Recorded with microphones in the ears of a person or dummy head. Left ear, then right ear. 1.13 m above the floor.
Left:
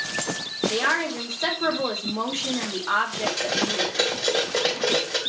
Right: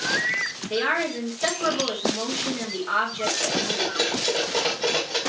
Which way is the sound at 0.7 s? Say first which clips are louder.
Even; 30° left (ahead or behind).